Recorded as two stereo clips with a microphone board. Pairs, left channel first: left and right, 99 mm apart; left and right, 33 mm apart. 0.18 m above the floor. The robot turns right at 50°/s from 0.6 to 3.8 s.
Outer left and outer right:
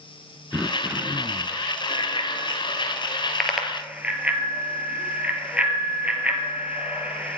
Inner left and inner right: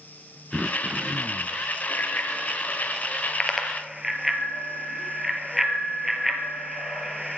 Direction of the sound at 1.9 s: 70° left (ahead or behind).